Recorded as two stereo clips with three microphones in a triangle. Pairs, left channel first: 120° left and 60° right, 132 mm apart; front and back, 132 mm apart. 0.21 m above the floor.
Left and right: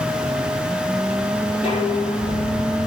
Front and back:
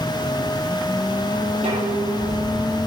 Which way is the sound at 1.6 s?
165° left.